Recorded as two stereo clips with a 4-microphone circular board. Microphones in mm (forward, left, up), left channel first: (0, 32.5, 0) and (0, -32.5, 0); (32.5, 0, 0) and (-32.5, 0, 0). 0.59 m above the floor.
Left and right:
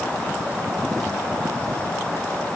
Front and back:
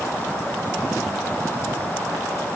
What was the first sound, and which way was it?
Only background noise.